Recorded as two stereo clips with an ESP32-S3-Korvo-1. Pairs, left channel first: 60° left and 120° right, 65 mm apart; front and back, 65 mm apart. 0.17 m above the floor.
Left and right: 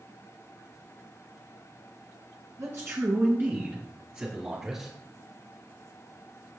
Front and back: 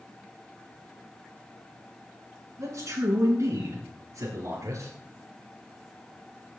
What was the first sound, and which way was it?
A man speaking, 150° right.